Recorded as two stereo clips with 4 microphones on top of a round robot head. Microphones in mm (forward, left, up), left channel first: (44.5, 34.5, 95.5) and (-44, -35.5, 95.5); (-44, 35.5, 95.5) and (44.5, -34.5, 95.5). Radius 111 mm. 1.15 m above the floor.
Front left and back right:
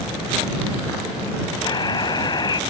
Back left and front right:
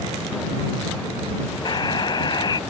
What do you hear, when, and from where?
1.6 s a buzzer: 90° left